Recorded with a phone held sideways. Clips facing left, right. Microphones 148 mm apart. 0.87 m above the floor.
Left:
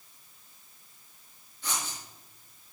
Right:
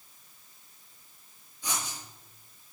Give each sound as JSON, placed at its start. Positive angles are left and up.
{"t": 1.6, "sound": "writing", "side_deg": -10, "distance_m": 5.0}